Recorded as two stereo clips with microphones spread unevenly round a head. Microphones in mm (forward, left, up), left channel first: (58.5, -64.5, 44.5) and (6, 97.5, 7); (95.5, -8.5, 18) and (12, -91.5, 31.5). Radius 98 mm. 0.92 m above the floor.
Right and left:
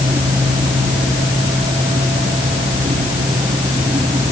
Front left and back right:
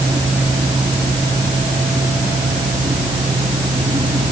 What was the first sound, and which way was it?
Only background noise.